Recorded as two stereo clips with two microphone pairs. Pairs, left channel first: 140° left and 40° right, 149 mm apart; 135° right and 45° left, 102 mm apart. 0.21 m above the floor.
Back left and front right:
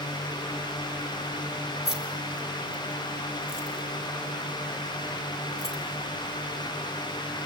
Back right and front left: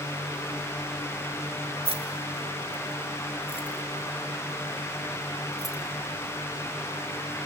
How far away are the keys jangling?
About 2.5 m.